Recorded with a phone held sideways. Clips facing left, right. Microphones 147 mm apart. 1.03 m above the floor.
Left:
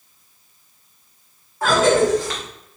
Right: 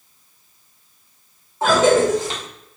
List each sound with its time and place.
1.6 s a cough: 20° right (ahead or behind), 0.8 m